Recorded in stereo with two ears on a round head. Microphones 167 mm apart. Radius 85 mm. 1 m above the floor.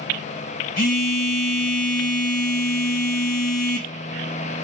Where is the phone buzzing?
45° left (ahead or behind), 0.8 m.